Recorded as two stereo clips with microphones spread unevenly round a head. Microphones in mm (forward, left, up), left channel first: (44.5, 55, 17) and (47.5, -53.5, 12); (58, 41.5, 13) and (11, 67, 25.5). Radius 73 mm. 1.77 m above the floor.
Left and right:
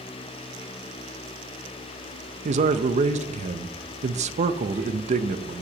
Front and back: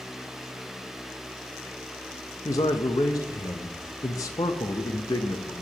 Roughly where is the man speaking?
Right.